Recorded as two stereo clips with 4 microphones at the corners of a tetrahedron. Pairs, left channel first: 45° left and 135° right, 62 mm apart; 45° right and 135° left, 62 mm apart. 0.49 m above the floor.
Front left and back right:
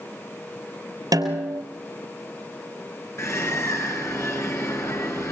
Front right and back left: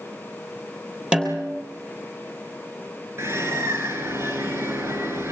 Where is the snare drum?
150° right, 3.5 m.